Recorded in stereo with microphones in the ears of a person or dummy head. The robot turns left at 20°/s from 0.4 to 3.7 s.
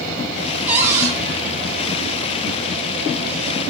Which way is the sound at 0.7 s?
10° right (ahead or behind).